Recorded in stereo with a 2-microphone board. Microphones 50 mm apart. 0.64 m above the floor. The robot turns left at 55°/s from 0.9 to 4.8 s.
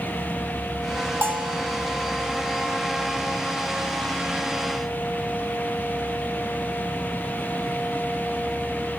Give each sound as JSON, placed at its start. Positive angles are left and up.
{"t": 1.2, "sound": "a bell", "side_deg": -55, "distance_m": 2.0}